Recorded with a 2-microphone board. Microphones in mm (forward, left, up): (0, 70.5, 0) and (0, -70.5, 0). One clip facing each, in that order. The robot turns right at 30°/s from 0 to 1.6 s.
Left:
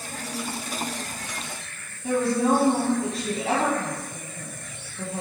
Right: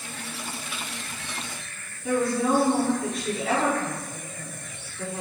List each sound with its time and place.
2.0 s a woman speaking: 35° left (ahead or behind), 1.9 m